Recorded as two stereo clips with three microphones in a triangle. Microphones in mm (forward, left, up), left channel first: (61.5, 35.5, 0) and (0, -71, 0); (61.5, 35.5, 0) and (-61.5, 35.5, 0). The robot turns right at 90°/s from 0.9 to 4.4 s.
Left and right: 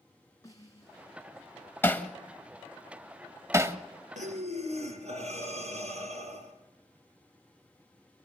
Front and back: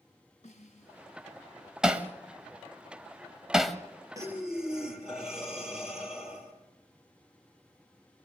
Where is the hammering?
100° left, 1.0 m; by 3.8 s 85° right, 1.0 m.